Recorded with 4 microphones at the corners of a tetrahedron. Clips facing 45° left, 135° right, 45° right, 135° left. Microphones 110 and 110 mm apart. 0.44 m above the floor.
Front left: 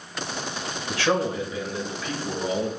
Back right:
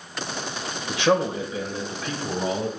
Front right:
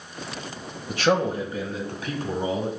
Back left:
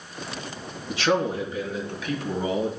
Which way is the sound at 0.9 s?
65° right.